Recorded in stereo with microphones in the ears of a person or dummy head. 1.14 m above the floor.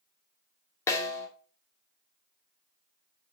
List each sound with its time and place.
0.9 s a snare drum: 20° left (ahead or behind), 2 m